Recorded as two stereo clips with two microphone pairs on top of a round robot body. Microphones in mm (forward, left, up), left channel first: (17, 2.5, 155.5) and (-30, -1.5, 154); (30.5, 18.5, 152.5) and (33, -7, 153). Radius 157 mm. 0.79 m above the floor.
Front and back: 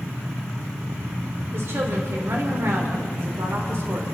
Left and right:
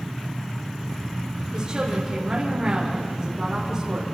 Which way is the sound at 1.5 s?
145° right.